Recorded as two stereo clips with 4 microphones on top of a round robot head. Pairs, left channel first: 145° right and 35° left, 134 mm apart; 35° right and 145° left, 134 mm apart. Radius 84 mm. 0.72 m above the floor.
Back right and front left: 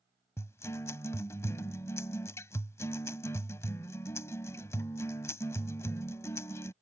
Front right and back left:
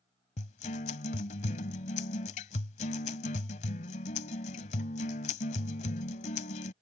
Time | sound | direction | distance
0.4 | a guitar | 70° right | ?